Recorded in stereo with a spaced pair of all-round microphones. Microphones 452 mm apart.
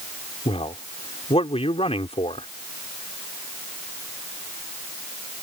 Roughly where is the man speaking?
Centre.